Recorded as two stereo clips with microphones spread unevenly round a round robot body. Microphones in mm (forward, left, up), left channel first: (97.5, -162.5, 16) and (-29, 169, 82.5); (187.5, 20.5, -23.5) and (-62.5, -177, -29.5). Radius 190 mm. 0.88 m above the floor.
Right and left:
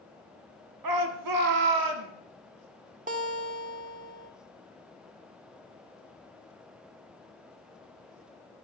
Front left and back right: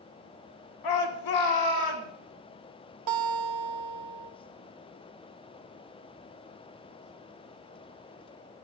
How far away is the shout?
About 2 m.